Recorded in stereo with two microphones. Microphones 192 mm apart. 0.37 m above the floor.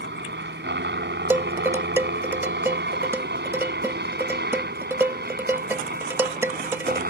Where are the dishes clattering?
10° right (ahead or behind).